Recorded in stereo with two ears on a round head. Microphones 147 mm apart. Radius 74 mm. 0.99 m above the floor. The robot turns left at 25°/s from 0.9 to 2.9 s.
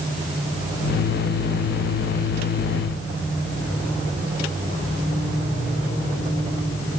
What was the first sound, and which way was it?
Only background noise.